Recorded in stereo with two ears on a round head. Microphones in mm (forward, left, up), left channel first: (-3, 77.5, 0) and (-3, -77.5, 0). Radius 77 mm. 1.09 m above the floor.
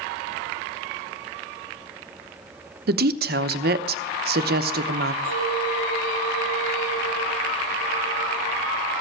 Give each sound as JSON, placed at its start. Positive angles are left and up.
{"t": 2.9, "sound": "a woman speaking", "side_deg": -60, "distance_m": 0.9}
{"t": 5.2, "sound": "a clink", "side_deg": 85, "distance_m": 8.5}